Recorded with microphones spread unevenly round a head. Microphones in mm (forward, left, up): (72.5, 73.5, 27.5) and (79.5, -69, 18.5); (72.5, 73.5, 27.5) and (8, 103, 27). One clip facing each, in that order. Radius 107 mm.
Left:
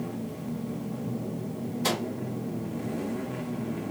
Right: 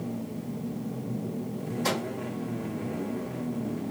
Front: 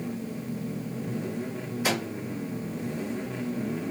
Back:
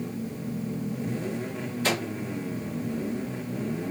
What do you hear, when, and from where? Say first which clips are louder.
1.8 s a microwave: left 1 dB, back 1 dB; 50° left, 0.8 m